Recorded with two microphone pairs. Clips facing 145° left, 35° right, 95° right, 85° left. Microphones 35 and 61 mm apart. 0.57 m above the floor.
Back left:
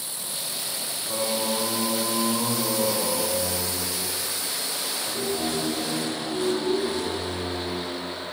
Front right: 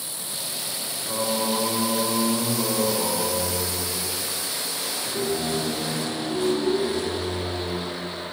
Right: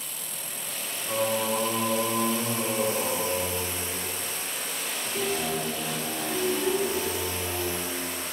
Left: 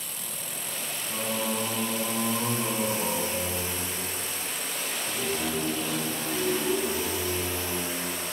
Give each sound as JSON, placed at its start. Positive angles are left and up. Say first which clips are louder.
{"t": 1.1, "sound": "singing", "louder": "front right 2 dB, right 5 dB", "azimuth_deg": -130, "distance_m": 6.0}